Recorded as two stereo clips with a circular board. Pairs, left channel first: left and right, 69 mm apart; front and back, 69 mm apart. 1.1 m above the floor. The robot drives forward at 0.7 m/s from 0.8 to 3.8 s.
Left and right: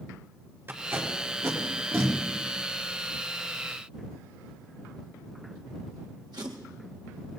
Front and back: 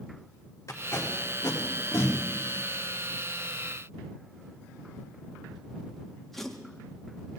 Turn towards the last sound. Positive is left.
turn(degrees=-85)